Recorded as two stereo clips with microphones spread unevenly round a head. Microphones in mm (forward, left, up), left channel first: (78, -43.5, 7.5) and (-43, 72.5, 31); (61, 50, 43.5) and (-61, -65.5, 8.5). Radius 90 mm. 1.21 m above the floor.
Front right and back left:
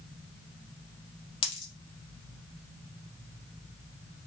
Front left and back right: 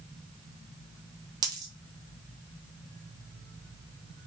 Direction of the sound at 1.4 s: 70° right.